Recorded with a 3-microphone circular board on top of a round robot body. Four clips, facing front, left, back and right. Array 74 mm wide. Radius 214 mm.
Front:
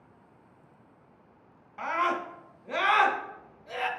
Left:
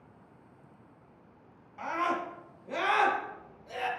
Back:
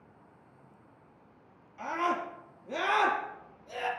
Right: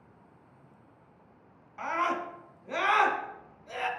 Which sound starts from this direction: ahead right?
A scream, at 1.8 s.